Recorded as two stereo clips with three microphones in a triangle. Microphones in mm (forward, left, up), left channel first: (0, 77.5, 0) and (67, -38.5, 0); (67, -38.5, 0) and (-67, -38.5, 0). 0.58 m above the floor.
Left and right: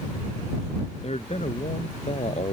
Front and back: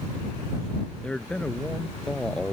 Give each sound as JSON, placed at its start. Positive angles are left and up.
{"t": 1.0, "sound": "a man speaking", "azimuth_deg": 85}